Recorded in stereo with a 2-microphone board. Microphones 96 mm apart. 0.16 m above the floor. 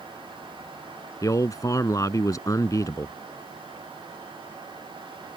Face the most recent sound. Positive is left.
turn(degrees=35)  # may be behind; listen again after turning